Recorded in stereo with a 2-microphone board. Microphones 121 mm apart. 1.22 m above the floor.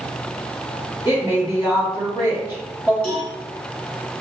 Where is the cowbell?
5° left (ahead or behind), 1.7 m.